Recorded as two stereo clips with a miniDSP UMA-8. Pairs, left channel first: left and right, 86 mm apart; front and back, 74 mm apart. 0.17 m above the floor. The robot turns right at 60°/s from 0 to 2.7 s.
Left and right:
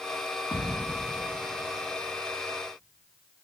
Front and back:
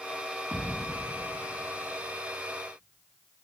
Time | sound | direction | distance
0.5 | a thud | 115° left | 3 m